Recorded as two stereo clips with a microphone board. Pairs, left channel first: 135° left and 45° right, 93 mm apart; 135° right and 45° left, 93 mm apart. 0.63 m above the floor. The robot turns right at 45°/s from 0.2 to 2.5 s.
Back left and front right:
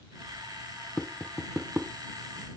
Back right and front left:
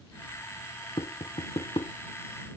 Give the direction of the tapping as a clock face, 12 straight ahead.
5 o'clock.